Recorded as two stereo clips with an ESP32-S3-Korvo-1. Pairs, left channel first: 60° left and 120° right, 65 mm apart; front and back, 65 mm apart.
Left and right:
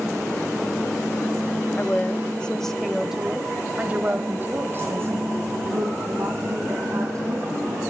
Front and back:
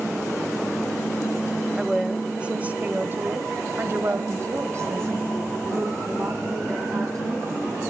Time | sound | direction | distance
1.8 | a woman speaking | 95° left | 1.3 m